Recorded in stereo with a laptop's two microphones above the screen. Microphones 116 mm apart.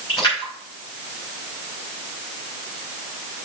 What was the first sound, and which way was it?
A splash, 45° left (ahead or behind).